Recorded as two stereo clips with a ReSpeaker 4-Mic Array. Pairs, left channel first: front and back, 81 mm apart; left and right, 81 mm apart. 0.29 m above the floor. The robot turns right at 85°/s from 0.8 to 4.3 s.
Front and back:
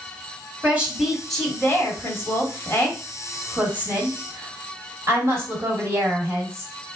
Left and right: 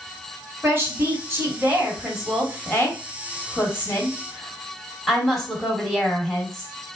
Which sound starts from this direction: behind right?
A woman speaking, at 0.6 s.